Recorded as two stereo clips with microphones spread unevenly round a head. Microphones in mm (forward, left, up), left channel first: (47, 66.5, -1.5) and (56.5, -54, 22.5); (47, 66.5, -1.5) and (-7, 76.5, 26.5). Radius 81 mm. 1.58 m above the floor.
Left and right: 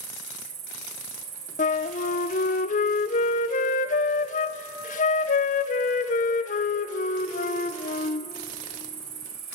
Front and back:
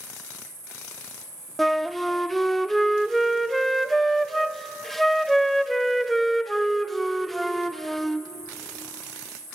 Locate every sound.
0.0 s an insect: 70° right, 4.5 m
1.6 s a flute: 105° left, 0.6 m